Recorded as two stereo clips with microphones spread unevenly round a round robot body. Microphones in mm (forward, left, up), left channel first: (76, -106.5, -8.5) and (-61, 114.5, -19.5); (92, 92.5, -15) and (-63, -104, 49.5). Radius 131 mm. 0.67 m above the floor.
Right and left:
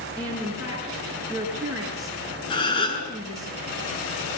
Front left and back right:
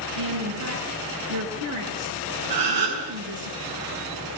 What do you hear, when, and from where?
0.2 s a woman speaking: 150° right, 7.5 m
2.5 s a gasp: 130° right, 7.5 m